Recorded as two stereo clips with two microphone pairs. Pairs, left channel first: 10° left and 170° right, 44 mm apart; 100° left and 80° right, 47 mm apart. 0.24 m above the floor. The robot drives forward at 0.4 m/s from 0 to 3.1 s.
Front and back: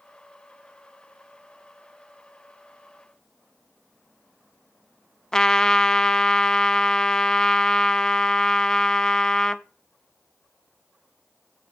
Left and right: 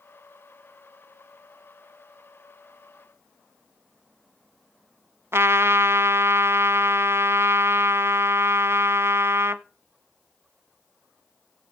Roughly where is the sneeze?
No sneeze in this recording.